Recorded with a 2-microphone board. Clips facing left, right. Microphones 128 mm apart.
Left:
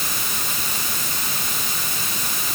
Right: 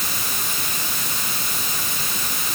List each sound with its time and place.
Only background noise.